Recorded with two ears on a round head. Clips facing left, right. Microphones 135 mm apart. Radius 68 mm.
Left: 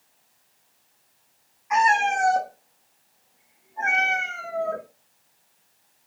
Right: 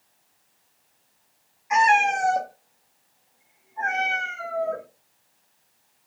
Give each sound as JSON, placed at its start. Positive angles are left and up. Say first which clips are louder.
{"t": 1.7, "sound": "a cat meowing", "louder": "right 1 dB", "side_deg": -25, "distance_m": 0.8}